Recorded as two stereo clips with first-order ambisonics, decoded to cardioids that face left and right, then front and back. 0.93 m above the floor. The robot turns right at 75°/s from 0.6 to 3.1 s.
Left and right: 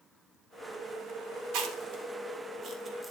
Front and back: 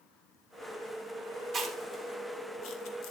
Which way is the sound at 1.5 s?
115° right.